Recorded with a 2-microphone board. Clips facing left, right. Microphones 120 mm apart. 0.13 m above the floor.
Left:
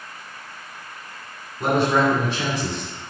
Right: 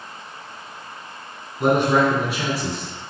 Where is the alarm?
I don't hear an alarm.